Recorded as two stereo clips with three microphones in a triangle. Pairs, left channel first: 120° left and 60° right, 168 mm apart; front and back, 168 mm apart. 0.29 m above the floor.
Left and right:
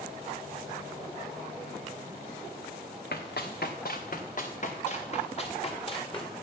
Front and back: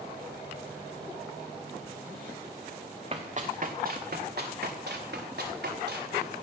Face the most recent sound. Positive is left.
turn(degrees=180)